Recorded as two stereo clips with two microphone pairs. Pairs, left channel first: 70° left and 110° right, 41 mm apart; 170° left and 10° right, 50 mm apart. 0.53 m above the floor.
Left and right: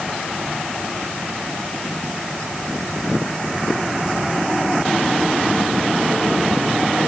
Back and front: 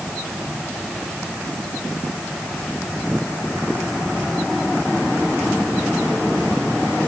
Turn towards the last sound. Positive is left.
No sound to turn to.